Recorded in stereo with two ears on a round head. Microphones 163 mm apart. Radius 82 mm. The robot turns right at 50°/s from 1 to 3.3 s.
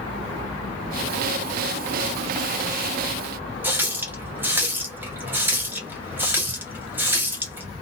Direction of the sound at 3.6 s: 10° right (ahead or behind).